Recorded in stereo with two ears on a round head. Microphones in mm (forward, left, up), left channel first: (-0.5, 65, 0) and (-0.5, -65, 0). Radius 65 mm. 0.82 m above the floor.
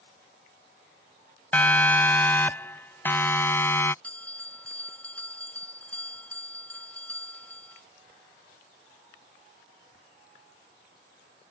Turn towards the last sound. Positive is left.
turn(degrees=10)  # may be behind; listen again after turning